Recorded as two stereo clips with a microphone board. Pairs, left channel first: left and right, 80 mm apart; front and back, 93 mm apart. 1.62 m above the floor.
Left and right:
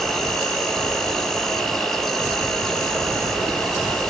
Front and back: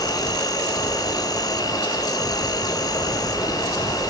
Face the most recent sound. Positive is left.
turn(degrees=10)